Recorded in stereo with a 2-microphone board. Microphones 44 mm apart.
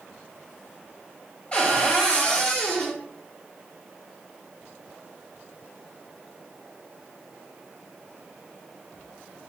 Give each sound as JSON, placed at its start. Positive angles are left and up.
{"t": 1.5, "sound": "a cupboard door", "side_deg": 30, "distance_m": 0.9}